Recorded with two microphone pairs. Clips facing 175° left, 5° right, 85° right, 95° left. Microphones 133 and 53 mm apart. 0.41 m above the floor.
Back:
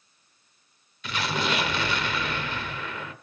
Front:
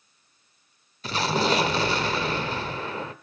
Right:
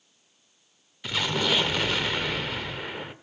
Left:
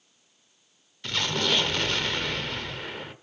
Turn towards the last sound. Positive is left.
turn(degrees=-10)